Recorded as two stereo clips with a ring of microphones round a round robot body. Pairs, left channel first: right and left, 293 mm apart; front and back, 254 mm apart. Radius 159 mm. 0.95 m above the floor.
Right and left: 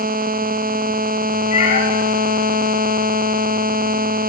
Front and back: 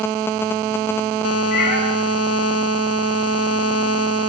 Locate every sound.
1.5 s a cat meowing: 20° right, 4 m